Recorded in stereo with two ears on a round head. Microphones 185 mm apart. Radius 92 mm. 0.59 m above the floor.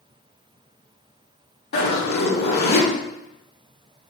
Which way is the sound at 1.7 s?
50° left (ahead or behind).